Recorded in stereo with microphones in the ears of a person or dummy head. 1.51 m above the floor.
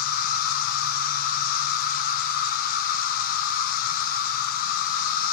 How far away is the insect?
About 1.2 m.